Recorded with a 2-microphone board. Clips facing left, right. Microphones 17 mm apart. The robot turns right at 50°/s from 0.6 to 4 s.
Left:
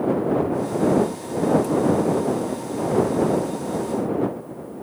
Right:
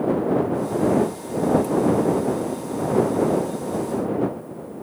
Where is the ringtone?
No ringtone in this recording.